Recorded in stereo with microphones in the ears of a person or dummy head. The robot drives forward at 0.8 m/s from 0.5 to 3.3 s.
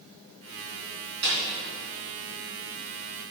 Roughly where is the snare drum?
Right.